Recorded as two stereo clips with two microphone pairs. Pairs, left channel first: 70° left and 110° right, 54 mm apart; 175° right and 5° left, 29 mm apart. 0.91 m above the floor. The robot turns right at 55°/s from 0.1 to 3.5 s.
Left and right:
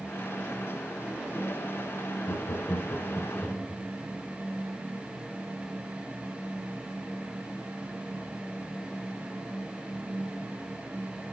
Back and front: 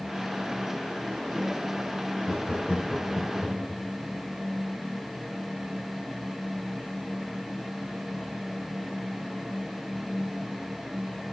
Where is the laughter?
80° left, 1.2 m; by 3.8 s 150° left, 1.2 m.